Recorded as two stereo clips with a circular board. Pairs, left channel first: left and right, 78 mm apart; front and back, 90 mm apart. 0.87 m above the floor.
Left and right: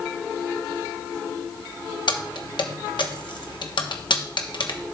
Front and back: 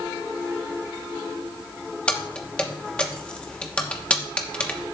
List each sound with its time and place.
2.1 s keys jangling: 80° left, 1.0 m